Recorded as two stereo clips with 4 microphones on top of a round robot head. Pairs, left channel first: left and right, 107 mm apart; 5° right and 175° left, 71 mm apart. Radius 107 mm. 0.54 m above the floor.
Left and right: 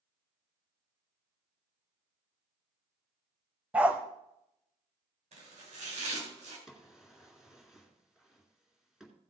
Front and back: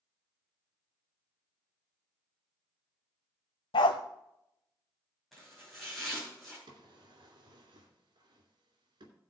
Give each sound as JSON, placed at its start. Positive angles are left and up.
{"t": 3.7, "sound": "a dog barking", "azimuth_deg": -10, "distance_m": 0.7}
{"t": 5.3, "sound": "chopping", "azimuth_deg": -90, "distance_m": 4.0}
{"t": 6.7, "sound": "a drawer", "azimuth_deg": -175, "distance_m": 2.5}